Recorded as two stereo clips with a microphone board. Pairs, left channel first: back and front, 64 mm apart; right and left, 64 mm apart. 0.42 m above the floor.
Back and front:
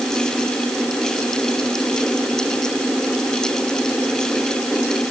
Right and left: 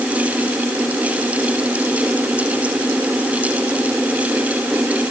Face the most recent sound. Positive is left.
No sound to turn to.